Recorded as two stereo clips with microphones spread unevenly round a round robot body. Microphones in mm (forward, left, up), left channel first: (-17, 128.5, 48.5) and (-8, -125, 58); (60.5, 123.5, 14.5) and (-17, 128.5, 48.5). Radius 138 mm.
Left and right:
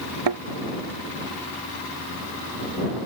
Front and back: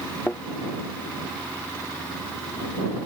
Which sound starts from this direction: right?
A thud, at 0.3 s.